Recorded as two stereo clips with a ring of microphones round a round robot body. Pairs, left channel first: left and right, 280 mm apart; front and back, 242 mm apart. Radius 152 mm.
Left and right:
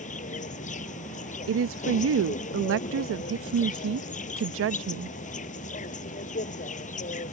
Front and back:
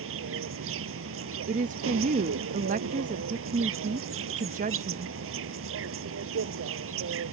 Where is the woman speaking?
125° right.